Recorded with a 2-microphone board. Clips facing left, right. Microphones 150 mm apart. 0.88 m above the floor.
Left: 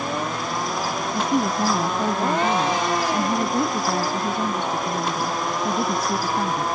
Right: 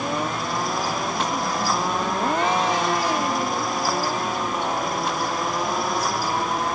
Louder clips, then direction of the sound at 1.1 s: Left 4 dB; 60° left (ahead or behind).